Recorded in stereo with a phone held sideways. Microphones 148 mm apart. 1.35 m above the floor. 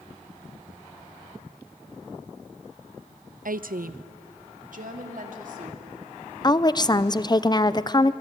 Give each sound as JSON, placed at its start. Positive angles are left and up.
{"t": 3.5, "sound": "a woman speaking", "side_deg": -70, "distance_m": 0.5}
{"t": 6.4, "sound": "a woman speaking", "side_deg": 30, "distance_m": 0.6}